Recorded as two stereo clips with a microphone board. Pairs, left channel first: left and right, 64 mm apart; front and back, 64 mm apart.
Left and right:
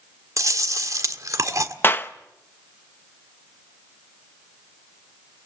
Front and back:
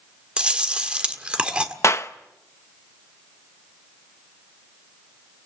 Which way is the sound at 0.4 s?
110° right.